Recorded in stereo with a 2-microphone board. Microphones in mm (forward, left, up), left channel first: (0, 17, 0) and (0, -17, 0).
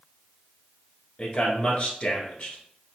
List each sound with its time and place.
1.2 s a man speaking: 35° left (ahead or behind), 1.3 m